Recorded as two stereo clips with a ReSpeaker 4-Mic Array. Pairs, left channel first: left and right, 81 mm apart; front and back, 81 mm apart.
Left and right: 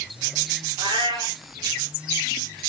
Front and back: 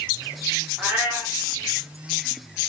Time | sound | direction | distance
0.8 | a cat meowing | 110° right | 4.5 m